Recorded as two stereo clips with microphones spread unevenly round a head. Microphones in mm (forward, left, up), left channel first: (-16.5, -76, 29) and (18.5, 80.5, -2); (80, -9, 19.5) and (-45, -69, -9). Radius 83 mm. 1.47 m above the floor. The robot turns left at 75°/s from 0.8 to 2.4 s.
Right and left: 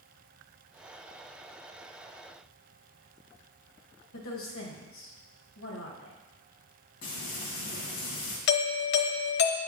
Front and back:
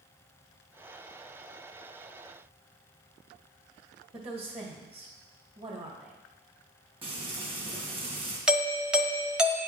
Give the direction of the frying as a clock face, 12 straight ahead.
3 o'clock.